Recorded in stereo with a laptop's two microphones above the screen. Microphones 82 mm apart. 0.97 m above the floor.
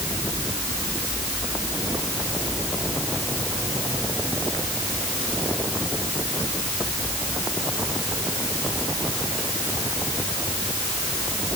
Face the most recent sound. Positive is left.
No sound to turn to.